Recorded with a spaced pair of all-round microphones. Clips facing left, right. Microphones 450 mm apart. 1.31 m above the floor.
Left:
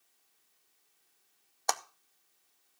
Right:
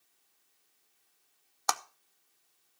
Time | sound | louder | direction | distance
1.7 | a clap | left 1 dB | 25° right (ahead or behind) | 0.5 m